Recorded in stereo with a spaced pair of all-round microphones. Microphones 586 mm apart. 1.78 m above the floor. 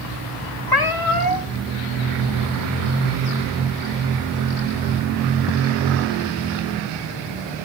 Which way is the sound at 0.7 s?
35° left (ahead or behind).